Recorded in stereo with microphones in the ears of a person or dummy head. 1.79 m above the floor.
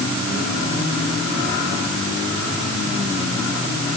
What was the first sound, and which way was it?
Only background noise.